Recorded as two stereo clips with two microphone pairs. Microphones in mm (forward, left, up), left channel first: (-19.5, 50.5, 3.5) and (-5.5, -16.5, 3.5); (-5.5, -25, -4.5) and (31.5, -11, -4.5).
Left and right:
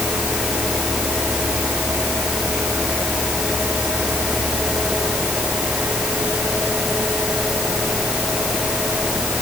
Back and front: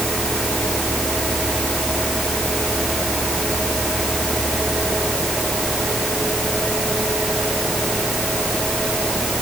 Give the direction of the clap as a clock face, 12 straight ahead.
No clap in this recording.